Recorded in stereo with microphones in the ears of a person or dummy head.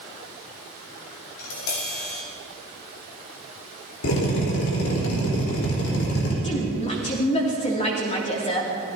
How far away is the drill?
About 3.5 m.